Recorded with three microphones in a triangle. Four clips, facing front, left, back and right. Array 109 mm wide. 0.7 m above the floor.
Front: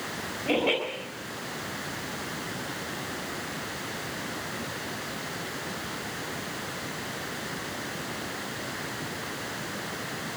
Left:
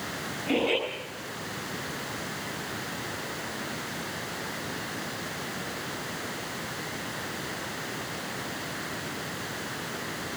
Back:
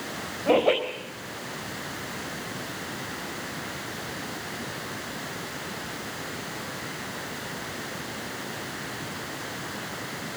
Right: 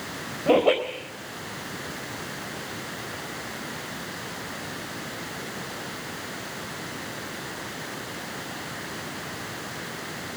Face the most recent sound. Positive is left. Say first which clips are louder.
# right 7 dB, back 6 dB
turn(degrees=-115)